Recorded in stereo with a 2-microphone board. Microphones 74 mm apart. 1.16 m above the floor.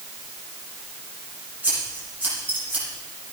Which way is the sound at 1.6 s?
20° right (ahead or behind).